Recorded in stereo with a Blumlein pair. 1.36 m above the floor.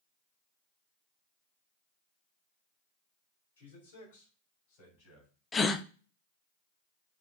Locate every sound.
3.6 s a man speaking: 60° left, 3.5 m; by 5.3 s 40° left, 5.5 m
5.5 s a gasp: 15° left, 0.5 m